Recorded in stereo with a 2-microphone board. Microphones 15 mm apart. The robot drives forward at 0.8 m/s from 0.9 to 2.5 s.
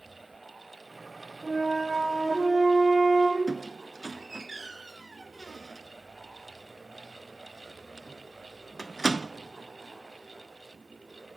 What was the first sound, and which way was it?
A flute, 30° left (ahead or behind).